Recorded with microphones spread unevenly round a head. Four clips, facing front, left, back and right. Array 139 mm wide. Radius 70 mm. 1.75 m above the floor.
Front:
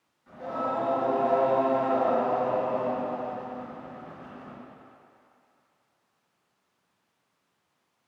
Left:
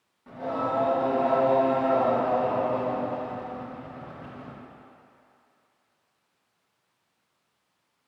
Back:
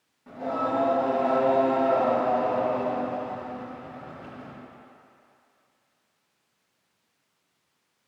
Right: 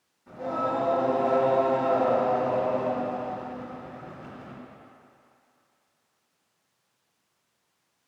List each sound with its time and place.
0.3 s singing: 140° left, 4 m